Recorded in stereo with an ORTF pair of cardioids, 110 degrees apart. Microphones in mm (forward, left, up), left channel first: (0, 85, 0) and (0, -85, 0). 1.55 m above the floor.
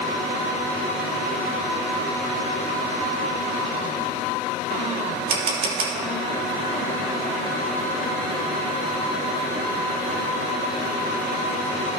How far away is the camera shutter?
About 2.5 m.